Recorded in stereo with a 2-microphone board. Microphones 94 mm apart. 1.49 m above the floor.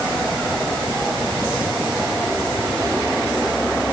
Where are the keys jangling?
No keys jangling in this recording.